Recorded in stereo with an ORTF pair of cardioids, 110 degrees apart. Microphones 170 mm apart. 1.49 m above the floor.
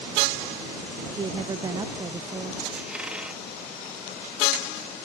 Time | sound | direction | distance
1.1 | a woman speaking | 25° right | ?
2.7 | a squeak | 5° right | ?